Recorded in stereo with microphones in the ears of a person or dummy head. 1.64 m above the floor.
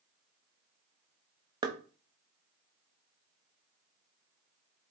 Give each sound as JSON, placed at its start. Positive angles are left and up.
{"t": 1.6, "sound": "knocking", "side_deg": -25, "distance_m": 0.6}